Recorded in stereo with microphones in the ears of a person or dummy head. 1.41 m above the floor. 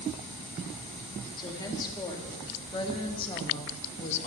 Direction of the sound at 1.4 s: 20° left (ahead or behind).